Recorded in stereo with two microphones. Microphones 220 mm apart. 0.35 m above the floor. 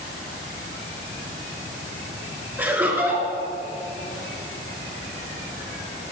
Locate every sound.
2.6 s laughter: 10° right (ahead or behind), 4 m